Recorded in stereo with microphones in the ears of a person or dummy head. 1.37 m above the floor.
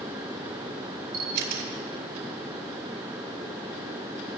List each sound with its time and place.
1.1 s a camera shutter: 55° right (ahead or behind), 4.5 m